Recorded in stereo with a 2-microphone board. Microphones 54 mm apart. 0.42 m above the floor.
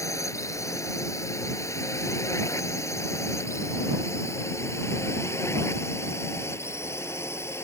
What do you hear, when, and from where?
0.0 s a drone: 75° left (ahead or behind); by 7.7 s 55° left (ahead or behind)